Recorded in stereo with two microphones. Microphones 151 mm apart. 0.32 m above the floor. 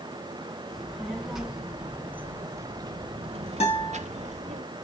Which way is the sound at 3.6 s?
50° left (ahead or behind).